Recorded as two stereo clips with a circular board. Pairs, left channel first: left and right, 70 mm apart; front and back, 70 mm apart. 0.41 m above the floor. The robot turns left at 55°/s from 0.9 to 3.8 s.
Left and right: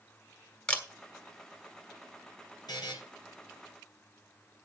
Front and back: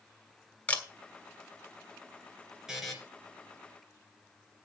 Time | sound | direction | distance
0.7 | a camera shutter | 35° left | 1.5 m
2.7 | a buzzer | 95° left | 2.5 m